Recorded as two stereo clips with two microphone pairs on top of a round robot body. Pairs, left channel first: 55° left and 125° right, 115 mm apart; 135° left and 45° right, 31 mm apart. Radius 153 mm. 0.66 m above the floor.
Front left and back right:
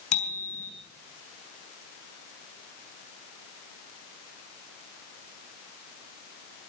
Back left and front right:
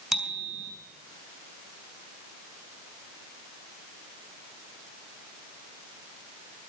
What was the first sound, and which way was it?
A bicycle bell, 40° left.